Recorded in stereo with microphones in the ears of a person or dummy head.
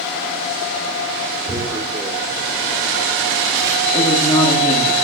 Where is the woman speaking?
25° left (ahead or behind), 2.5 m.